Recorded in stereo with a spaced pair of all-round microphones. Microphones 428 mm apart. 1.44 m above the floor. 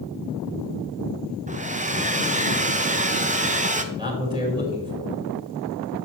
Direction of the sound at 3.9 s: 10° right (ahead or behind).